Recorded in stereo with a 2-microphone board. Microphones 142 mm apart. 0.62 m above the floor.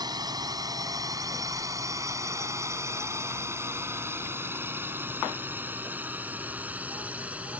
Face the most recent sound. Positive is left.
turn(degrees=-10)  # may be behind; listen again after turning